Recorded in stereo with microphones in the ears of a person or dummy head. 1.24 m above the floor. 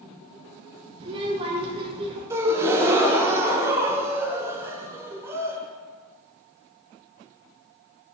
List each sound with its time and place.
1.0 s a child speaking: 25° right (ahead or behind), 0.6 m
2.3 s a gasp: 10° right (ahead or behind), 0.7 m